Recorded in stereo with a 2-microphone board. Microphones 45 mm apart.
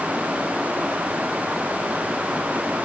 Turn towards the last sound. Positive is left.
No sound to turn to.